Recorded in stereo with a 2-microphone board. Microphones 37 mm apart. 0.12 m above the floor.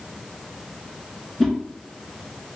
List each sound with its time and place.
1.4 s a whoosh: 5° left (ahead or behind), 1.1 m